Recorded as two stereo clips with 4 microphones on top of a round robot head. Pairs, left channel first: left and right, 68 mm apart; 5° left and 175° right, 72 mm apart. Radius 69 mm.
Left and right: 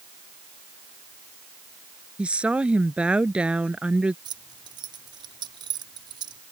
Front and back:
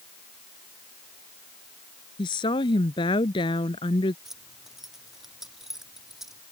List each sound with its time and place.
2.2 s a woman speaking: 15° right
4.2 s keys jangling: 85° right